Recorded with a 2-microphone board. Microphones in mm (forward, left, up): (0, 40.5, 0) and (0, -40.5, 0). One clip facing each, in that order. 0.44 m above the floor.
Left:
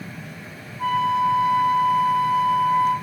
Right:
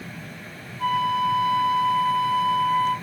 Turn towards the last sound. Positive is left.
turn(degrees=20)  # may be behind; listen again after turning